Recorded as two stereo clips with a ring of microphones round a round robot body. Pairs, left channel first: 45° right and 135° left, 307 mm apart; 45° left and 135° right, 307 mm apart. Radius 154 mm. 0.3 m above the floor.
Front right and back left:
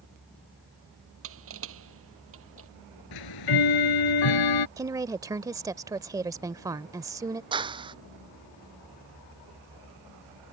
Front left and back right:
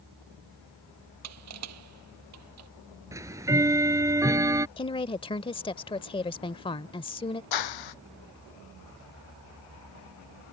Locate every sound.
1.2 s crushing: 175° right
3.1 s ticking: 55° right
4.8 s a woman speaking: 80° left
7.5 s a clap: 60° left